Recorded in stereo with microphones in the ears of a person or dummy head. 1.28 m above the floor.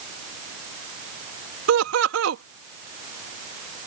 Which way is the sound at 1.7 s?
65° right (ahead or behind).